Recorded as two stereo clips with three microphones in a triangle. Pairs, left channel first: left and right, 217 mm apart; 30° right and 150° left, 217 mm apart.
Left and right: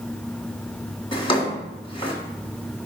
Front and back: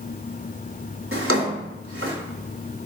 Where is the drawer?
155° left, 1.7 m.